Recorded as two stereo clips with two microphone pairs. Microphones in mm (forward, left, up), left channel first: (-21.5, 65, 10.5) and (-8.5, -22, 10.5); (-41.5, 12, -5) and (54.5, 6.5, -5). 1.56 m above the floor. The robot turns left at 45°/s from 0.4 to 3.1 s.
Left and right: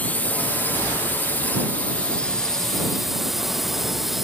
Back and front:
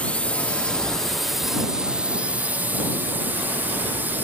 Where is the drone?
125° left; by 4.2 s 5° left.